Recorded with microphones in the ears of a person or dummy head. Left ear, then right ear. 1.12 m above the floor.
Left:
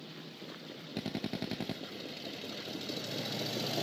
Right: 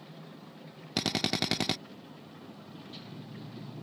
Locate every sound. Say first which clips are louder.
1.0 s a drill: right 10 dB; 50° right (ahead or behind)